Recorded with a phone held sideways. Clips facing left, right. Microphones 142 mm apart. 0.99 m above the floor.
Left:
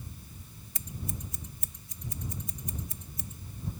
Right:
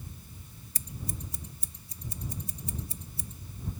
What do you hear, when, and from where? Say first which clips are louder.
0.8 s scissors: left 1 dB; 30° right (ahead or behind)